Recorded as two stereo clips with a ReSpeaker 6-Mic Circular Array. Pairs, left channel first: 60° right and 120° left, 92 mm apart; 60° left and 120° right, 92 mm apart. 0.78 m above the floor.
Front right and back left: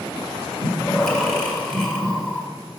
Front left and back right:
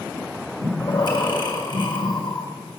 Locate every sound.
0.6 s breathing: 20° left, 1.6 m